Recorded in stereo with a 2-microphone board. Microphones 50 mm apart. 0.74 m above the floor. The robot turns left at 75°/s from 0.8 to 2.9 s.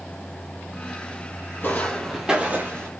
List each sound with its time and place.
1.6 s footsteps: 40° left (ahead or behind), 1.6 m; by 2.9 s 55° right (ahead or behind), 1.2 m